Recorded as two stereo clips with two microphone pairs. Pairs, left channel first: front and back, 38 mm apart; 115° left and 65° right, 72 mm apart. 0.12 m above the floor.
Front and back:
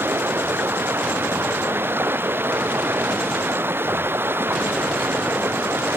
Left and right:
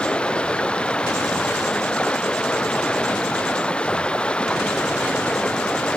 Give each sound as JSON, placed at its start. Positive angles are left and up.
{"t": 0.0, "sound": "running water", "azimuth_deg": -170}